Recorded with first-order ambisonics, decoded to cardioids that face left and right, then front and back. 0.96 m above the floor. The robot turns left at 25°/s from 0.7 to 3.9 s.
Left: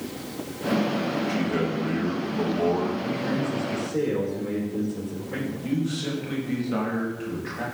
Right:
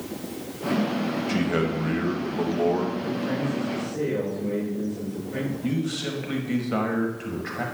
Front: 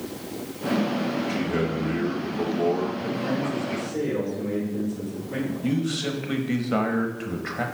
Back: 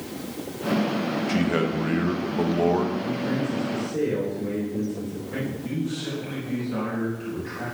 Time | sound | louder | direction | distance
1.3 | a man speaking | right 1 dB, back 2 dB | 145° right | 0.8 m
3.0 | a man speaking | even, even | 140° left | 3 m
5.6 | a man speaking | even, front 4 dB | 15° right | 0.9 m